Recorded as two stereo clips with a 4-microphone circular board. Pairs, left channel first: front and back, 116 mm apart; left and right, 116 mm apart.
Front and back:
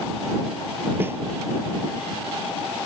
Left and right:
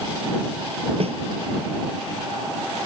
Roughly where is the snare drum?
Right.